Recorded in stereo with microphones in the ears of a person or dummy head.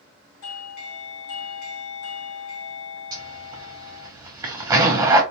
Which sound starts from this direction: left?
A doorbell, at 0.4 s.